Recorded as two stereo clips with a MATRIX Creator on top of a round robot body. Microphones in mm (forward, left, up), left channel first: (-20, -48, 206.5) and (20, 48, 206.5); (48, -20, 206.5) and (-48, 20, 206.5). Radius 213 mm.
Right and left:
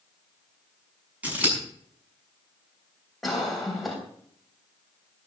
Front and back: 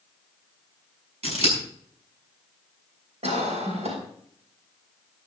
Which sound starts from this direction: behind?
A cough, at 3.2 s.